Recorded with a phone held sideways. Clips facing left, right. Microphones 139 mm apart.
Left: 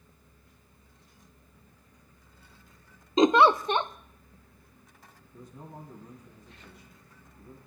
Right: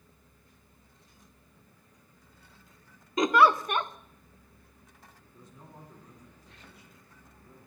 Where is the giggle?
25° left (ahead or behind), 0.5 m.